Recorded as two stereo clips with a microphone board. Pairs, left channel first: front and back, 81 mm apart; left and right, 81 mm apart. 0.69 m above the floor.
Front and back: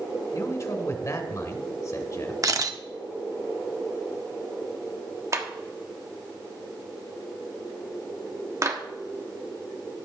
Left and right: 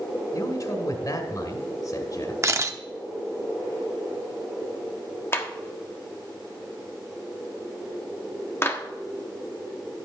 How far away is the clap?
About 1.3 m.